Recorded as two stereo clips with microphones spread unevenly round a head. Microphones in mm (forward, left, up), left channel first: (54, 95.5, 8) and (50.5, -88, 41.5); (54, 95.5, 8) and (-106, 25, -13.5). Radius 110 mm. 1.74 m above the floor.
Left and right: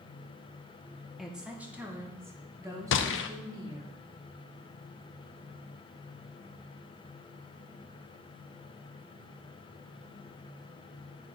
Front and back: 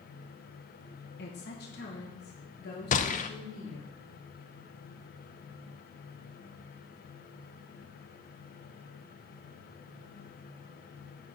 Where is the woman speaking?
5° right, 1.3 m; by 3.9 s 25° right, 3 m.